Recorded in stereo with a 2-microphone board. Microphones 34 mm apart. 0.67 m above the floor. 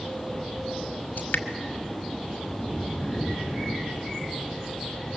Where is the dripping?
70° left (ahead or behind), 1.4 m.